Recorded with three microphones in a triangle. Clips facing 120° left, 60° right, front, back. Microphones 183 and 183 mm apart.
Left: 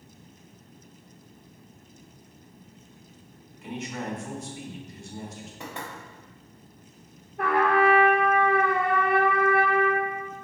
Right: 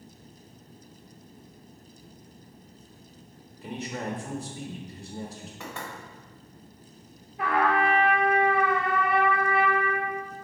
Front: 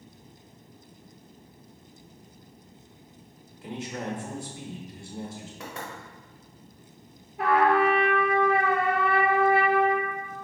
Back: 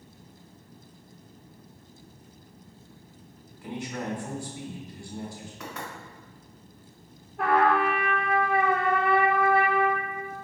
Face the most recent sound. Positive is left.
turn(degrees=85)